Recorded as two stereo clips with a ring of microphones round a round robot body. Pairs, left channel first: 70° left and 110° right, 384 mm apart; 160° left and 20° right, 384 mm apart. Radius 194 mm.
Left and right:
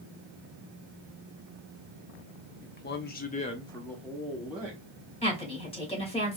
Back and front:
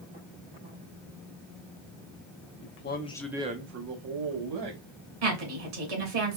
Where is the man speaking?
125° left, 1.0 m; by 4.8 s 30° right, 1.5 m.